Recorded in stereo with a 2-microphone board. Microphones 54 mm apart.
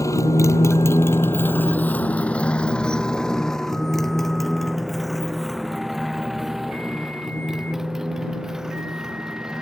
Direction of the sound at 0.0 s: 75° left (ahead or behind).